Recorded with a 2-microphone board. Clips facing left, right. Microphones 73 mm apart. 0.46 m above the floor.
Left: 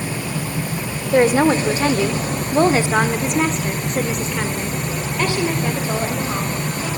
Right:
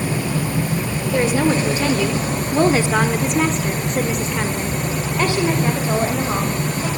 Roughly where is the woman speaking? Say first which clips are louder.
Left 4 dB; left.